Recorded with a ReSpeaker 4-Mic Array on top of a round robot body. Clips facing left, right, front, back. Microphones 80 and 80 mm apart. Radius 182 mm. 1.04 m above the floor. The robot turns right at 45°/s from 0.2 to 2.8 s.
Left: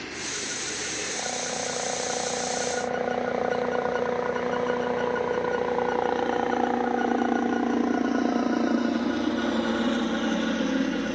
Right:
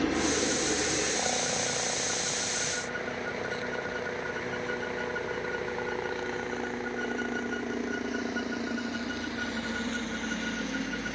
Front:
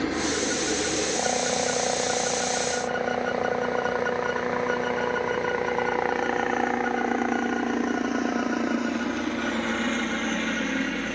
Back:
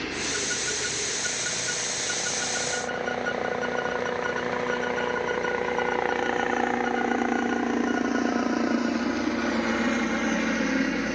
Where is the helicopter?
55° right; by 11.2 s 100° left.